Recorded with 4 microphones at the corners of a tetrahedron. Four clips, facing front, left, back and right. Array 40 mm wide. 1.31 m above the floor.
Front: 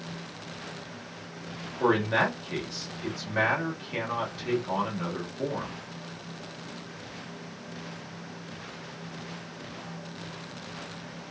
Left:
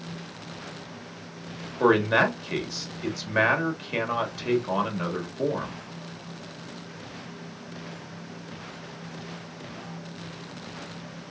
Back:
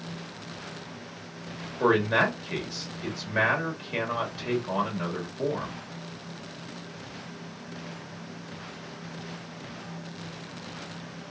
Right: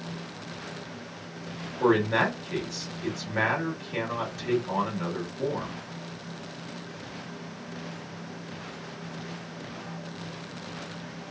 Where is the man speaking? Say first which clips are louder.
Left 3 dB, back 2 dB; 100° left, 2 m.